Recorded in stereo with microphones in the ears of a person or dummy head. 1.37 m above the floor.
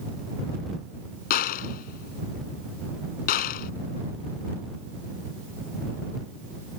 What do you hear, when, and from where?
1.3 s a gunshot: 45° left (ahead or behind)